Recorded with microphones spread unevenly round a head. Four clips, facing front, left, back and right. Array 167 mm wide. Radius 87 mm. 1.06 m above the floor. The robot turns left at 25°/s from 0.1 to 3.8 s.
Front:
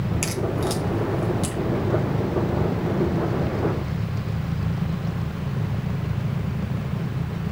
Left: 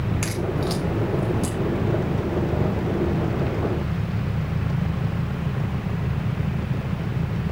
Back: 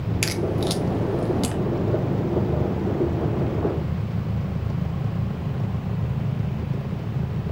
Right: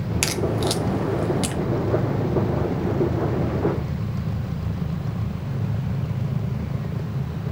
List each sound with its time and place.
0.2 s a crack: 130° right, 0.9 m; by 1.6 s 160° right, 0.9 m